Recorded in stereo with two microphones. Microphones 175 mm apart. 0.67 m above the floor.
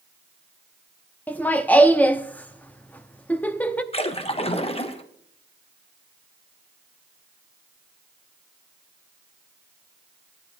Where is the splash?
30° left (ahead or behind), 0.9 m.